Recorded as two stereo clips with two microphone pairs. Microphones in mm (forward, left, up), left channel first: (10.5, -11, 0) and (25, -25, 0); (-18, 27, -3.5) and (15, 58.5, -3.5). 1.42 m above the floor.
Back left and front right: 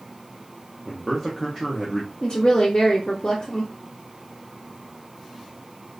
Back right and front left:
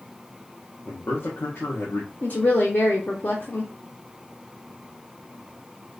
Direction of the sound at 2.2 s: 175° right.